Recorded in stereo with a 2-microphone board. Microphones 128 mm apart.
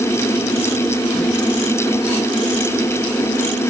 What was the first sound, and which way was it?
Only background noise.